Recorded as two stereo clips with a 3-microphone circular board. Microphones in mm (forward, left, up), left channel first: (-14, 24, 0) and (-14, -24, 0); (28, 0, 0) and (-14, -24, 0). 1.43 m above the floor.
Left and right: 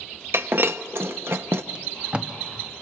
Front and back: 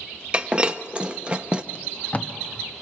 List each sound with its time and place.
0.3 s breaking glass: 90° right, 1.0 m
1.8 s tape being pulled: 30° right, 1.3 m